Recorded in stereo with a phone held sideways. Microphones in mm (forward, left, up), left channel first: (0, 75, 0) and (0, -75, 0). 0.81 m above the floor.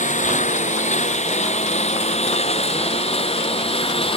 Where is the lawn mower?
55° left (ahead or behind); by 4.2 s 40° left (ahead or behind).